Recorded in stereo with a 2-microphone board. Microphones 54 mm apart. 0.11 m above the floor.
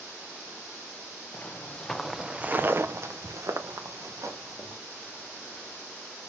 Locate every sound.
1.3 s footsteps: 25° left (ahead or behind), 0.9 m; by 4.8 s 85° right, 1.8 m